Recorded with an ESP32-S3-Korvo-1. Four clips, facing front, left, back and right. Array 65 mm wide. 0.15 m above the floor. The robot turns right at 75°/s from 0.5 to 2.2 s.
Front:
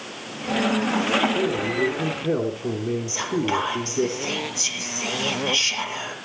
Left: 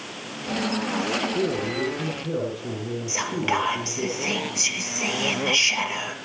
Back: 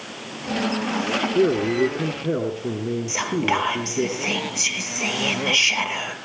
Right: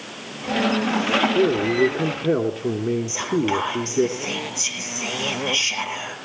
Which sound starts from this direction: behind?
A man speaking, at 1.4 s.